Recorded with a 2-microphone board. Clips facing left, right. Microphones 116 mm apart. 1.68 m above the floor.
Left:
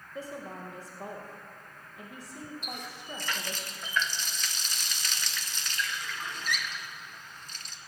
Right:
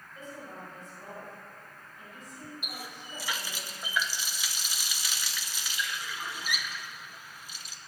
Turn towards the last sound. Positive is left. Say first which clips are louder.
# left 2 dB
turn(degrees=-10)  # may be behind; listen again after turning